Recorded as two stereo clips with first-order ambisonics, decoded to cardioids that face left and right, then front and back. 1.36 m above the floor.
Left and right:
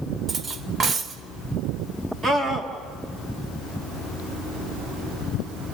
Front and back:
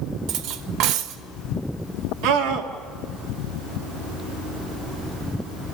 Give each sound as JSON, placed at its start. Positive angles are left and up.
{"t": 0.3, "sound": "cutlery clinking", "azimuth_deg": -155, "distance_m": 0.9}
{"t": 2.2, "sound": "a scream", "azimuth_deg": -165, "distance_m": 3.0}